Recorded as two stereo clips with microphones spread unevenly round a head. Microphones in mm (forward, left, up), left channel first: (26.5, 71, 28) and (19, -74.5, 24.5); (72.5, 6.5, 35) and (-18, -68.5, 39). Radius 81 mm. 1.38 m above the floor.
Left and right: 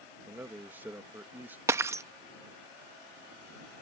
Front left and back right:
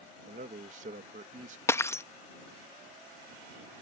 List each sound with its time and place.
0.3 s a man speaking: 170° right
1.7 s breaking glass: 25° right